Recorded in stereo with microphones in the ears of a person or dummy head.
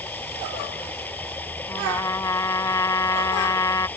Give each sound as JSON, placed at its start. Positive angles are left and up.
{"t": 0.0, "sound": "running water", "side_deg": 10}
{"t": 1.7, "sound": "a trumpet", "side_deg": 20}